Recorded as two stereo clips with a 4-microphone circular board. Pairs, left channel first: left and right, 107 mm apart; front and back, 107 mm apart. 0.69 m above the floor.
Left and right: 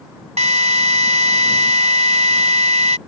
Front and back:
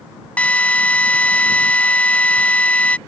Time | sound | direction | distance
0.4 | a drill | 80° right | ?